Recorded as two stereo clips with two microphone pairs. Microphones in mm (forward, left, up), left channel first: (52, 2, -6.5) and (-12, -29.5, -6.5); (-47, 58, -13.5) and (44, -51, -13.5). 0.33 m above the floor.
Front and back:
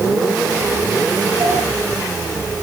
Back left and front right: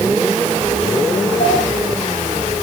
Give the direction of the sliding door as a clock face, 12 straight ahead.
6 o'clock.